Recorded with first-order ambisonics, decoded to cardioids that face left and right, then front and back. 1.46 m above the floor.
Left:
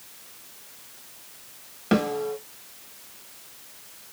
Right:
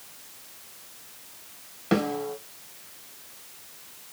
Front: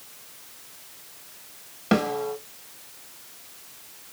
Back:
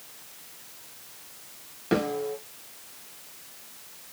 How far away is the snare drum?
About 1.3 m.